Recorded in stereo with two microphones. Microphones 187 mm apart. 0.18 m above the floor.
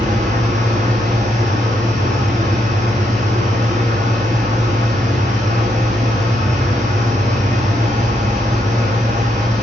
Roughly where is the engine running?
Right.